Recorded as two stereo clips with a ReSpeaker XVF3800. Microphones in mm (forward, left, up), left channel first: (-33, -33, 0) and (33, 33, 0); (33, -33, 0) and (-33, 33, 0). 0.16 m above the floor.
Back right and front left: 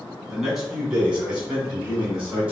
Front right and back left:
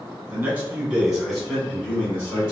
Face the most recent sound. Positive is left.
turn(degrees=-15)